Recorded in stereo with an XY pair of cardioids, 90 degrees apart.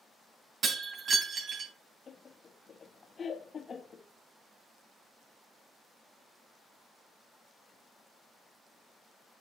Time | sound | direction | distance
0.6 | breaking glass | 60° right | 3 m
2.1 | laughter | 45° left | 1.3 m